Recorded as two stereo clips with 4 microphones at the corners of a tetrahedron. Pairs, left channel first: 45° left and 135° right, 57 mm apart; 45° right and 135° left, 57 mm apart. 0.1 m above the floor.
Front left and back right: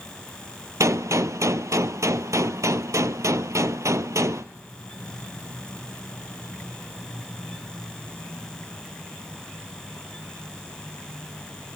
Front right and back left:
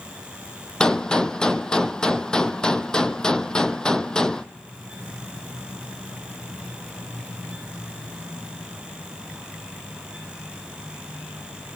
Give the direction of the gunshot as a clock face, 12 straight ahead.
4 o'clock.